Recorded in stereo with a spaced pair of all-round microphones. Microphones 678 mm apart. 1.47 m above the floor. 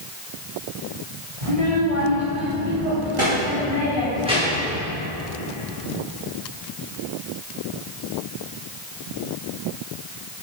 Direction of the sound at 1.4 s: 80° right.